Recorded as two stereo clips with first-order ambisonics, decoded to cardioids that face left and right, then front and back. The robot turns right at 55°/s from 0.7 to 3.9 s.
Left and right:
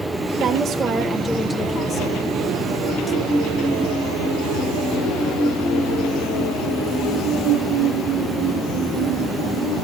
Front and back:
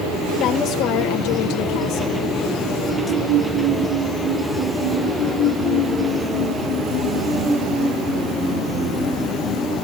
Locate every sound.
0.4 s a woman speaking: 40° right, 1.4 m; by 2.2 s 45° left, 1.4 m